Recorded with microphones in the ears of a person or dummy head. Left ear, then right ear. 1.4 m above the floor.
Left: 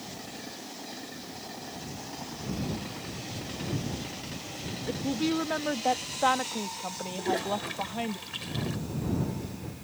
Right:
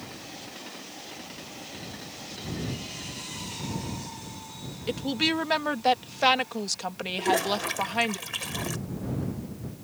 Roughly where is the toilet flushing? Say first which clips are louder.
Right 5 dB; right.